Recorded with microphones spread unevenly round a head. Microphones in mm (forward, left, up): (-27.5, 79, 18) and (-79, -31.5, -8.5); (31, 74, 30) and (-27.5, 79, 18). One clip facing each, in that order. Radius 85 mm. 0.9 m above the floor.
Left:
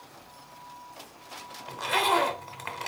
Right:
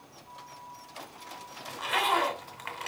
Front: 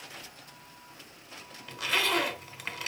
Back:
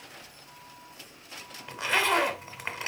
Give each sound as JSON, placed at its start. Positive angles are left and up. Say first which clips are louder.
{"t": 1.7, "sound": "a zipper", "louder": "left 3 dB, back 3 dB", "azimuth_deg": 115, "distance_m": 2.5}